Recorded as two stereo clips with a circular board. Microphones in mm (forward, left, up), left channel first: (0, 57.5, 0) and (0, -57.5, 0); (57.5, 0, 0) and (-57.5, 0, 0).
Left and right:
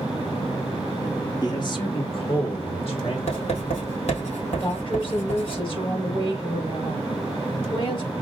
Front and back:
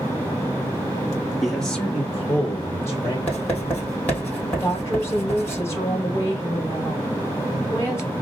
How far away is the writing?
About 3 m.